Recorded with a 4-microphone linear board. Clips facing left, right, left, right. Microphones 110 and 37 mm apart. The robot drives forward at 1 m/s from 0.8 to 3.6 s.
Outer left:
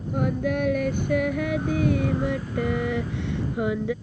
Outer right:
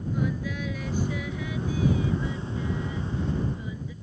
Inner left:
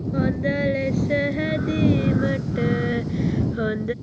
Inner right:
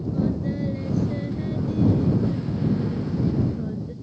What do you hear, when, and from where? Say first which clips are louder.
0.1 s singing: outer left 7 dB, inner left 4 dB; 60° left (ahead or behind); by 3.9 s 80° left